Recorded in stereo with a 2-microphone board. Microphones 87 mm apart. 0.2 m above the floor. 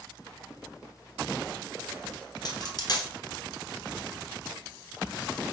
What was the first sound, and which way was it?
A dropped coin, 50° left (ahead or behind).